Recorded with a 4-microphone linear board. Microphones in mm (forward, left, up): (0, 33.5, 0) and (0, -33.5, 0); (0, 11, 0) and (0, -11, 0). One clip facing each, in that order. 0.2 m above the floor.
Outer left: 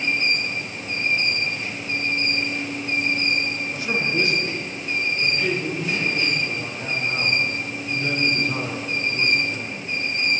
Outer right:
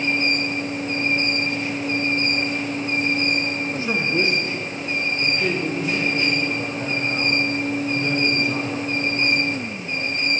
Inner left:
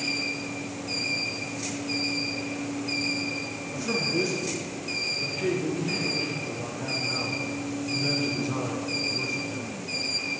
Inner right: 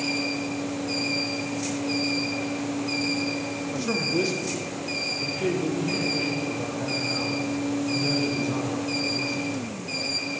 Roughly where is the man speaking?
Right.